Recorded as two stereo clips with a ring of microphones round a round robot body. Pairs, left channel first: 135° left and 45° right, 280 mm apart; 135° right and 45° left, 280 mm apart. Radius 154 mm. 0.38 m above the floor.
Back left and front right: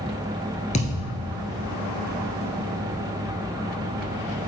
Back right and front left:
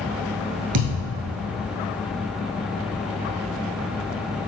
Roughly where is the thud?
Ahead left.